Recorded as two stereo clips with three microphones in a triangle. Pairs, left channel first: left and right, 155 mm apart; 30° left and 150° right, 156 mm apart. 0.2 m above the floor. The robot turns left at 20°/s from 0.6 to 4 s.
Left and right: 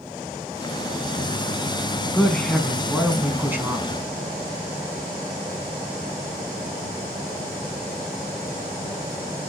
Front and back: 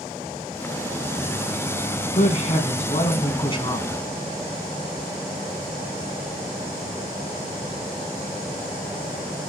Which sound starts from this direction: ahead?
A woman speaking, at 2.1 s.